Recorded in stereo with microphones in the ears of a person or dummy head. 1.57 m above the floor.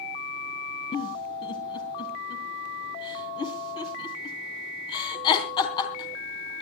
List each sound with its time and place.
0.9 s a giggle: 25° left (ahead or behind), 3 m